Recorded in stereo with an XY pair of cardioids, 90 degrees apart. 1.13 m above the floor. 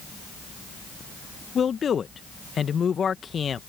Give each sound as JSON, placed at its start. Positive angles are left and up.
{"t": 1.6, "sound": "a man speaking", "azimuth_deg": 50}